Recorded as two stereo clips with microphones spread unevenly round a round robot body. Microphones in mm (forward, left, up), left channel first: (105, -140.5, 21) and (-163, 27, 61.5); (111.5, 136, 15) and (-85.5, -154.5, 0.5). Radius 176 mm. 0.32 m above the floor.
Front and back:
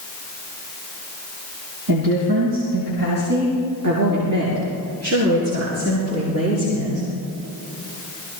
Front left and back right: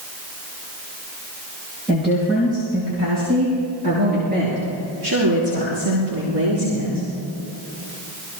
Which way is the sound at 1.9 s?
145° left.